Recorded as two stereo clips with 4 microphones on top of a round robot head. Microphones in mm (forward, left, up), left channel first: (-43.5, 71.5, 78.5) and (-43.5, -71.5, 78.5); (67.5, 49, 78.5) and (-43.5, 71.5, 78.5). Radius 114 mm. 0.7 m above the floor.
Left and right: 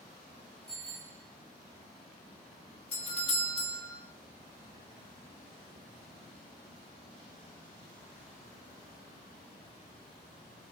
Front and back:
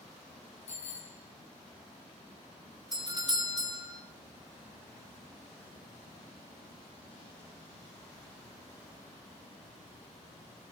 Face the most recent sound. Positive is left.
turn(degrees=125)